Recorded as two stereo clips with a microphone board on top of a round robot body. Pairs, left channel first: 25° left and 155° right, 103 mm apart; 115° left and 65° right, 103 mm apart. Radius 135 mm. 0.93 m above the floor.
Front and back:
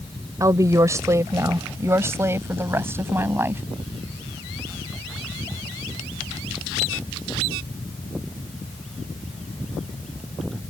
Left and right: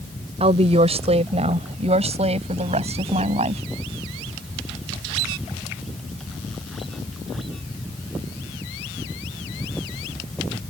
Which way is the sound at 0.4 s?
95° right.